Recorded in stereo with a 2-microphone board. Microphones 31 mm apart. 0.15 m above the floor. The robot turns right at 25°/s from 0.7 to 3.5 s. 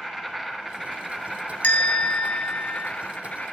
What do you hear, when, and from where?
0.0 s an insect: 10° right, 1.2 m; by 3.5 s 60° left, 1.2 m
1.6 s a bell: 65° left, 0.7 m; by 2.9 s 95° left, 0.7 m